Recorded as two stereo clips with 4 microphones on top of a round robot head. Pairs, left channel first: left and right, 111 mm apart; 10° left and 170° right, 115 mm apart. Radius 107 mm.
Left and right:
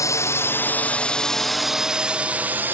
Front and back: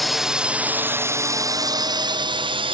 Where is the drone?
100° left; by 2.7 s 160° right.